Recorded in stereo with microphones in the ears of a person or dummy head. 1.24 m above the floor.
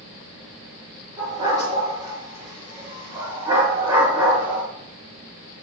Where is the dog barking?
25° right (ahead or behind), 6 m; by 4.6 s 15° right (ahead or behind), 4 m.